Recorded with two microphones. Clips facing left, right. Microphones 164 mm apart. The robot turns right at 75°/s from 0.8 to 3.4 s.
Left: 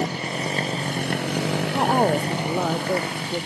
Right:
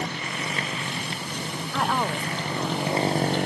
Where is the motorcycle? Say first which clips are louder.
Left 5 dB; 35° left (ahead or behind); by 3.5 s 60° right (ahead or behind).